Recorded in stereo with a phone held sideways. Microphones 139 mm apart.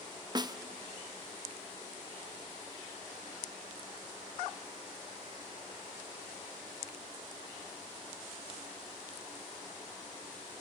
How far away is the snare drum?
About 0.9 m.